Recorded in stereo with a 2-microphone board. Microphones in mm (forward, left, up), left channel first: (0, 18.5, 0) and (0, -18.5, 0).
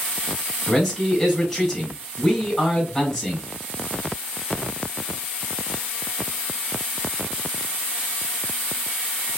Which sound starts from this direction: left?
A man speaking, at 0.7 s.